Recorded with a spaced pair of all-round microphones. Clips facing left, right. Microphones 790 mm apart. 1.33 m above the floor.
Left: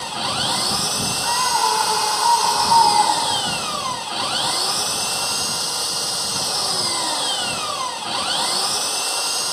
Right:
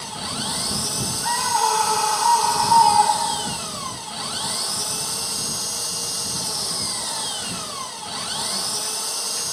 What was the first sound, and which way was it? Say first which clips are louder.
An engine running: left 3 dB; 85° left.